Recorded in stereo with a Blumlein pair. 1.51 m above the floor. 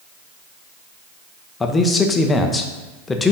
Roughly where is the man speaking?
Ahead.